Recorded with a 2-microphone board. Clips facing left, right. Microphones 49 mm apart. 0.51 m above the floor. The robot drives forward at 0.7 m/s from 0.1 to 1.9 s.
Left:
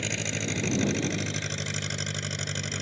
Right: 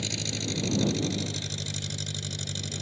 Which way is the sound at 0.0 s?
40° left (ahead or behind).